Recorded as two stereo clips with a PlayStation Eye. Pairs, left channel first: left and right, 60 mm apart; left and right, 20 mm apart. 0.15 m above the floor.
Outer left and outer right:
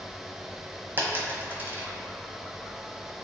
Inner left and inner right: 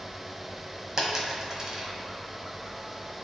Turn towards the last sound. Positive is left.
turn(degrees=-35)  # may be behind; listen again after turning